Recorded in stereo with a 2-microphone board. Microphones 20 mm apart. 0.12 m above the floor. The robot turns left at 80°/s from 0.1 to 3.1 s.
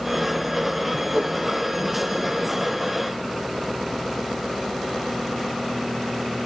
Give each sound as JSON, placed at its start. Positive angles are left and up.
{"t": 1.1, "sound": "a whoosh", "side_deg": -65, "distance_m": 3.0}